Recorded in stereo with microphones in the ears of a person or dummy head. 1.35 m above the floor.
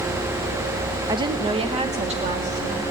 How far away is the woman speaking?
About 0.5 m.